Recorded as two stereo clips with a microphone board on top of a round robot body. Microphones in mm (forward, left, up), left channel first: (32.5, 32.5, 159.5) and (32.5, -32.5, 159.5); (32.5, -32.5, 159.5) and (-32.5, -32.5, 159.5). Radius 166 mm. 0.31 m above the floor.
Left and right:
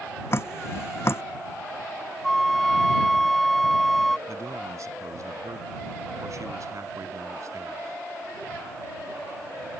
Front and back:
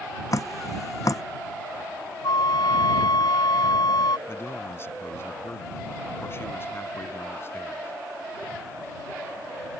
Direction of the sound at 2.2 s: 5° left.